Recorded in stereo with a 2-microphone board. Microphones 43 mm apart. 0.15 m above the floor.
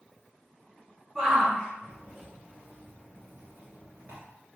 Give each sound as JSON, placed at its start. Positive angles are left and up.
{"t": 1.1, "sound": "a shout", "side_deg": -10, "distance_m": 4.5}